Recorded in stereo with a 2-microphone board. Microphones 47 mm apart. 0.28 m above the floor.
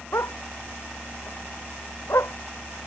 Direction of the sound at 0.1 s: 80° left.